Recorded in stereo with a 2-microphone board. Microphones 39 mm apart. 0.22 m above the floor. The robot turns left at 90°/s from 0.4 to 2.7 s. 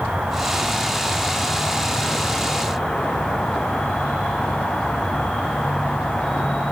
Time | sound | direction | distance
0.0 | an insect | 130° right | 4 m